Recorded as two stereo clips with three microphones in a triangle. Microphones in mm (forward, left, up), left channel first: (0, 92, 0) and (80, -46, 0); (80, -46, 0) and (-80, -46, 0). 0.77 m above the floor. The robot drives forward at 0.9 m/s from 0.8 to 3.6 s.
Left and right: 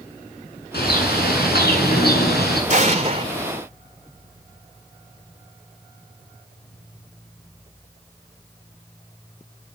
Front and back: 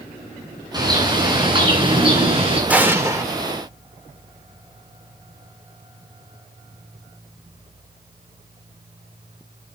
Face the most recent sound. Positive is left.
turn(degrees=-120)